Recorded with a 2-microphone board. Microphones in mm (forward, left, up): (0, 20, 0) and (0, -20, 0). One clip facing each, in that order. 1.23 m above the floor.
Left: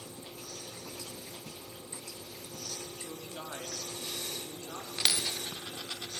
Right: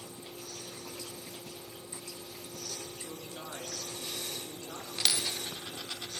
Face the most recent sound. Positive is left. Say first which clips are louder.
# even
turn(degrees=15)  # may be behind; listen again after turning